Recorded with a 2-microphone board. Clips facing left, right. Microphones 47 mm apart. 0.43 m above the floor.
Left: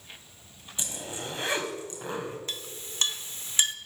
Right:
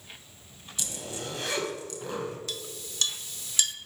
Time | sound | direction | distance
0.8 | a zipper | 25° left (ahead or behind) | 2 m
2.5 | a clink | 30° left (ahead or behind) | 0.6 m